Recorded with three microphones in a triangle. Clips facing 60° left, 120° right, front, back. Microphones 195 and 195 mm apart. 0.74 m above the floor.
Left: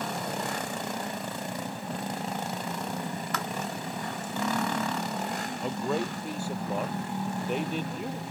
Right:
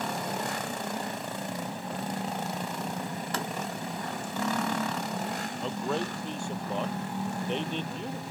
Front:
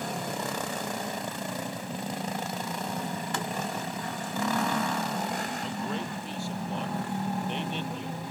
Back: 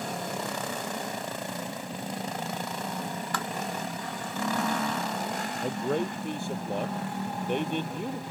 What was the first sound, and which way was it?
Tapping, 60° right.